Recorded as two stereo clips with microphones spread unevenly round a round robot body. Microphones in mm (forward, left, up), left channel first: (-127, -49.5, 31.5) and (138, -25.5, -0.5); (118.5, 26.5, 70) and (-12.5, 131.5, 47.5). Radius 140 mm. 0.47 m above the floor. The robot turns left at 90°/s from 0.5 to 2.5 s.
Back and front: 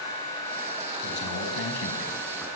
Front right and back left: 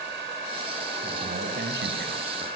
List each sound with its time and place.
1.0 s a man speaking: 140° right, 5 m; by 2.5 s 90° left, 5 m